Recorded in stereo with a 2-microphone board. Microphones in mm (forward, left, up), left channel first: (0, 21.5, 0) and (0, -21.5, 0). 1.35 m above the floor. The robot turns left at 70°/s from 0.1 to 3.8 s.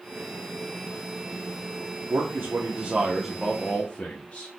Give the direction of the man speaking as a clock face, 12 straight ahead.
3 o'clock.